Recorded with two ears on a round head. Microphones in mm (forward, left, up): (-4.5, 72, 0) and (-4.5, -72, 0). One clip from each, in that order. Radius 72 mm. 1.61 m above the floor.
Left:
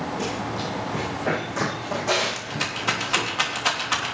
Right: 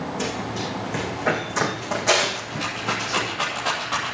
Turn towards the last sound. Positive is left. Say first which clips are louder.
# even
turn(degrees=50)  # may be behind; listen again after turning